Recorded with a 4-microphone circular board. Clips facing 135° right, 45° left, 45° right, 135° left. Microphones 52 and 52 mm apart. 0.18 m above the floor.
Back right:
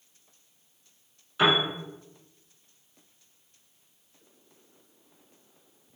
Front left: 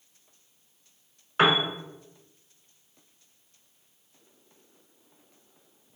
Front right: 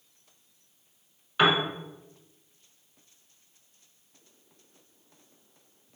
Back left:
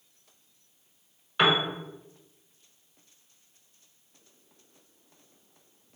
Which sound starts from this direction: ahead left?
A piano, at 1.4 s.